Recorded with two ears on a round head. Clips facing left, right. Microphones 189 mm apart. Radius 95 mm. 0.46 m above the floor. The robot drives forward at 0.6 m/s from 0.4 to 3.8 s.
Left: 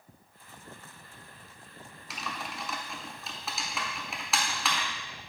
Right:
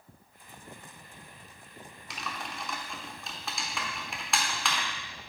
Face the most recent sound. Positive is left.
turn(degrees=0)  # may be behind; listen again after turning